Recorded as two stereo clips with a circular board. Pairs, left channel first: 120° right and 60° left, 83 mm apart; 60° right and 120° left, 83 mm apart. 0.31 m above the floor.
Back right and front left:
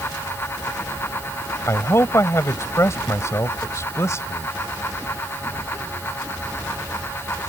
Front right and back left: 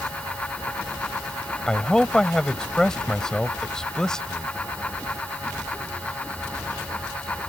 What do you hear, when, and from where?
1.7 s a man speaking: 135° right